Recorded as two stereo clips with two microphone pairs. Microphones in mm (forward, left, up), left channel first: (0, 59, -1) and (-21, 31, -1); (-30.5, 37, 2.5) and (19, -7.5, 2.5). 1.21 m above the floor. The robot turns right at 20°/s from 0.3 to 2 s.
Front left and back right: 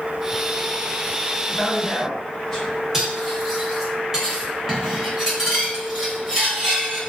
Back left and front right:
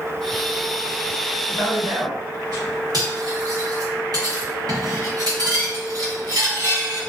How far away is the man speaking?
About 1.4 m.